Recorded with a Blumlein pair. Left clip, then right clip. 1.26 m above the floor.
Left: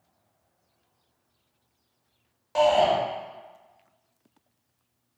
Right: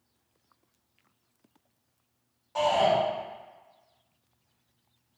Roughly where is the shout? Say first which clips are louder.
Left 4 dB; ahead left.